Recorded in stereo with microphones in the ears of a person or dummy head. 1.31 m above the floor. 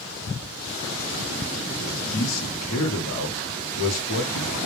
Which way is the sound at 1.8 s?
70° left (ahead or behind).